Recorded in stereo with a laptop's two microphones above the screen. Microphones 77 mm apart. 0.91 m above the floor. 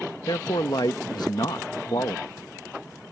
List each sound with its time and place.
0.3 s a man speaking: 60° left (ahead or behind)